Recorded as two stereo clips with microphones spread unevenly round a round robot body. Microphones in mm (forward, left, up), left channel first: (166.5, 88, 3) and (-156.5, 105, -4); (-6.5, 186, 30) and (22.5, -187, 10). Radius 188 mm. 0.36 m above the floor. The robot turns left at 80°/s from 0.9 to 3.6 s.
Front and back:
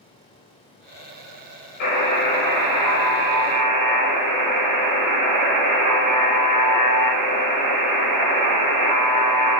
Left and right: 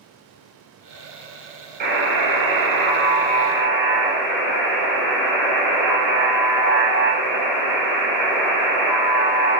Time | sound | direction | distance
1.8 | a buzzer | 30° right | 0.9 m